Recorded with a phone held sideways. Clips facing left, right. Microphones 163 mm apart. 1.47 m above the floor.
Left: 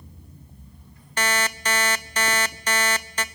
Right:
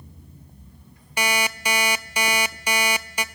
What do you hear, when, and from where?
1.2 s an alarm clock: 10° right (ahead or behind), 0.8 m